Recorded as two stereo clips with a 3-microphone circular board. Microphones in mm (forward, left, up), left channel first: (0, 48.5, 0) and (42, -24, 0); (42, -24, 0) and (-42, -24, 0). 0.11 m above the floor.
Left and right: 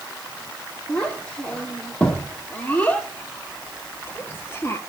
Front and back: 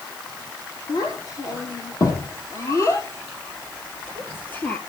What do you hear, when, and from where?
0.9 s a child speaking: 40° left, 3.5 m; by 4.8 s 65° left, 2 m